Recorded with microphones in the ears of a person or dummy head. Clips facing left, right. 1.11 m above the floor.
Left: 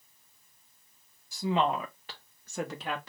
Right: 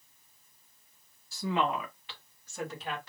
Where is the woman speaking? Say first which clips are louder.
Left 2 dB; 15° left (ahead or behind), 1.1 m; by 3.1 s 60° left (ahead or behind), 1.1 m.